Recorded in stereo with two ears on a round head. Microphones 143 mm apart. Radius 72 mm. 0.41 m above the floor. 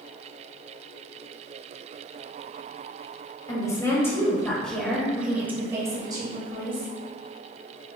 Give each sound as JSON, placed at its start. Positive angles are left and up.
{"t": 3.5, "sound": "a woman speaking", "side_deg": 25, "distance_m": 2.5}